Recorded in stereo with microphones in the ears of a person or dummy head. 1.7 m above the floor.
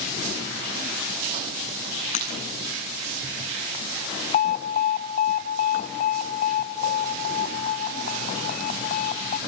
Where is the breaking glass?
45° left (ahead or behind), 10 m.